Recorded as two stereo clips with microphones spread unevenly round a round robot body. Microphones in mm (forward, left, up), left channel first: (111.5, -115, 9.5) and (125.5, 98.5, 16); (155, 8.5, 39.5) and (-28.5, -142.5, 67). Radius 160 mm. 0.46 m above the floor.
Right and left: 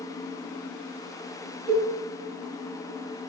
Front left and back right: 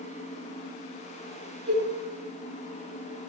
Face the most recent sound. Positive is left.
turn(degrees=175)